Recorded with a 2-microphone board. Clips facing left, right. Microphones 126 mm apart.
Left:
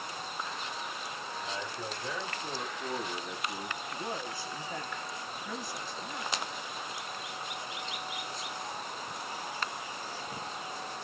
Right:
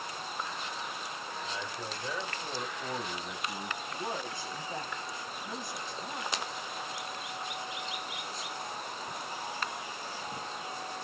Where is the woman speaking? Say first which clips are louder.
Right 1 dB; 25° right (ahead or behind), 2 m.